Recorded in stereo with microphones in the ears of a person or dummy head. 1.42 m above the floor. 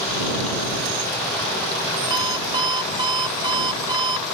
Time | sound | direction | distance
2.1 | an alarm clock | 30° right (ahead or behind) | ?